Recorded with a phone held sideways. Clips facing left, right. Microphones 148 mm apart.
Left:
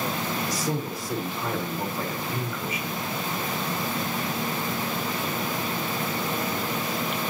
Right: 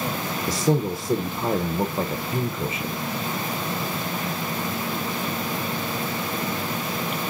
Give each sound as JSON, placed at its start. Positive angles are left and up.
{"t": 0.5, "sound": "a man speaking", "side_deg": -45, "distance_m": 1.0}